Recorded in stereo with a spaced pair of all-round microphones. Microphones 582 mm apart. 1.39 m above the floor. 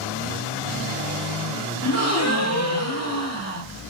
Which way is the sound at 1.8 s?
25° left (ahead or behind).